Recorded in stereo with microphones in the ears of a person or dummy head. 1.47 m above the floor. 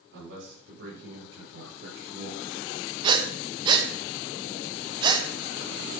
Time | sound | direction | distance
0.1 | a man speaking | 75° right (ahead or behind) | 6 m
3.0 | breathing | 30° right (ahead or behind) | 1.2 m